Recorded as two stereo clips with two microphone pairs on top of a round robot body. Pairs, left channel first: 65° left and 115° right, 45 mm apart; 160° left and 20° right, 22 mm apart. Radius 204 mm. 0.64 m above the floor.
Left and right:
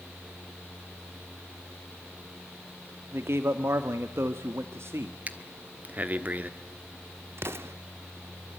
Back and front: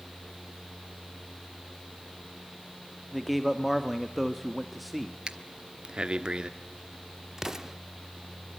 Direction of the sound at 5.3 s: 65° right.